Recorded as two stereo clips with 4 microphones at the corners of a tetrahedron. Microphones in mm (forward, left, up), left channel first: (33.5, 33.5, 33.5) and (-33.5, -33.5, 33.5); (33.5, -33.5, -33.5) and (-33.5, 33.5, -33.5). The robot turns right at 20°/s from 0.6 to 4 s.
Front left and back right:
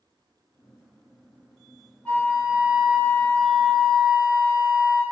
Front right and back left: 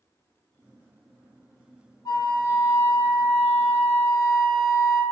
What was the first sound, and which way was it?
A flute, 25° right.